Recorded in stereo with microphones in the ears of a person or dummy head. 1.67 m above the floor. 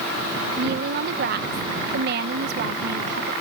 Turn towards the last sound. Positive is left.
turn(degrees=-55)  # may be behind; listen again after turning